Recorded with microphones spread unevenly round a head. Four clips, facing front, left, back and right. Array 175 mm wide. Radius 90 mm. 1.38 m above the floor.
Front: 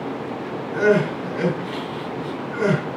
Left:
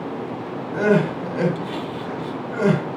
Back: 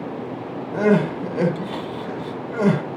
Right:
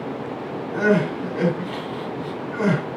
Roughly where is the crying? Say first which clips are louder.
Left 1 dB, even; behind.